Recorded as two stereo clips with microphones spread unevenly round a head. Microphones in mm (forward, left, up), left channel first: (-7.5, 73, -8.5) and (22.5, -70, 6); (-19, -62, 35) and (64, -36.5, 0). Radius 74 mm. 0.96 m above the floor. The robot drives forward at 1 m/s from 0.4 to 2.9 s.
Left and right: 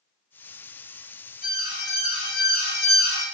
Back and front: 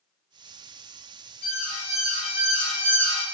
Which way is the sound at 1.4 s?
145° left.